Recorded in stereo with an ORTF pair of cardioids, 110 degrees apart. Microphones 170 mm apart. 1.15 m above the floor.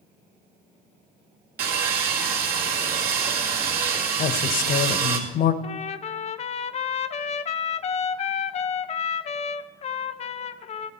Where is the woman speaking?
60° left, 1.0 m.